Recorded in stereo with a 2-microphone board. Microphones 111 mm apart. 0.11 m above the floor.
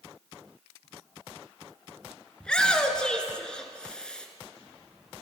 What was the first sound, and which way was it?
A shout, 10° left (ahead or behind).